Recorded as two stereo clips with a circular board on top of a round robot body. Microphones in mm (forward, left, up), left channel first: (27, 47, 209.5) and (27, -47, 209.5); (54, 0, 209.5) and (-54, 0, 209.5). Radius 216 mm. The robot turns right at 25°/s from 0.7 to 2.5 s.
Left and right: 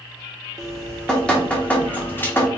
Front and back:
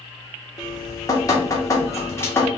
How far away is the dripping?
About 1.3 m.